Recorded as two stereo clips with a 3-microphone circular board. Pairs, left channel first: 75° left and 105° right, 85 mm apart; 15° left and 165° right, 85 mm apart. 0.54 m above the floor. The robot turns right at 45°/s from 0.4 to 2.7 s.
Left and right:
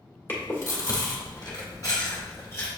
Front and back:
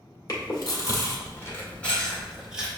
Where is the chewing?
20° left, 1.4 m; by 2.7 s 125° left, 1.4 m.